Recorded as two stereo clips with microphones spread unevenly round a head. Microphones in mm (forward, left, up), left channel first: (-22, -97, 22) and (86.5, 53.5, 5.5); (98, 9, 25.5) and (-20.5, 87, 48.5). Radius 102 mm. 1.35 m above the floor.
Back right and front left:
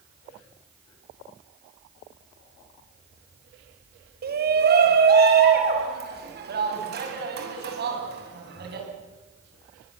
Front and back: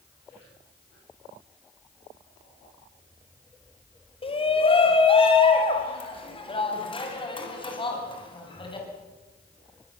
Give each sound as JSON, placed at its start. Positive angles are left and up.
{"t": 4.2, "sound": "a shout", "azimuth_deg": 20, "distance_m": 5.5}